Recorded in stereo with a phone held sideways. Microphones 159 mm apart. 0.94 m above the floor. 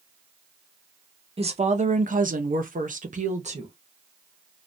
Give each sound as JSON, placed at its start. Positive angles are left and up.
{"t": 1.4, "sound": "a woman speaking", "side_deg": -40, "distance_m": 0.8}